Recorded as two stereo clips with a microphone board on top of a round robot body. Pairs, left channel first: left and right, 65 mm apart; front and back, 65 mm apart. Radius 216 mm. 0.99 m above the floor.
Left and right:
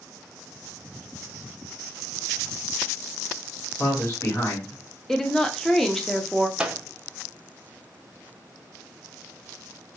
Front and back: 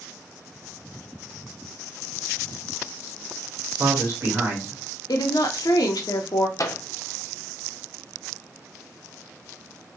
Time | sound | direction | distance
3.8 | a man speaking | 135° left | 1.4 m
5.1 | a woman speaking | 5° left | 0.7 m
6.6 | a microwave | 20° right | 0.7 m